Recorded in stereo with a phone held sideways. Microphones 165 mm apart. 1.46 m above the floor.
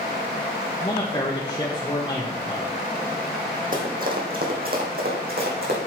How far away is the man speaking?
About 1.3 m.